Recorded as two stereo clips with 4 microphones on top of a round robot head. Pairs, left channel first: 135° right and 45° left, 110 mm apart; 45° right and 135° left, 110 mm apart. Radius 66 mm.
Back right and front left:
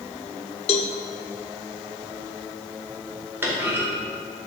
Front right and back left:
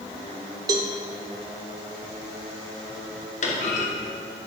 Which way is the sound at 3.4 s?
25° right.